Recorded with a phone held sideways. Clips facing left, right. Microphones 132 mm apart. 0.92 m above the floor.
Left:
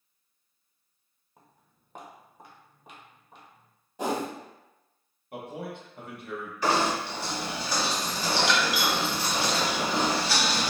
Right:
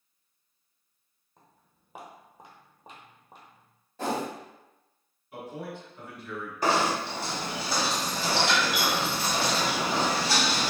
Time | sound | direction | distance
1.4 | footsteps | 10° left (ahead or behind) | 1.0 m
4.0 | a whoosh | 15° left (ahead or behind) | 0.7 m
5.3 | a man speaking | 55° left (ahead or behind) | 1.2 m
6.6 | knocking | 45° right (ahead or behind) | 1.4 m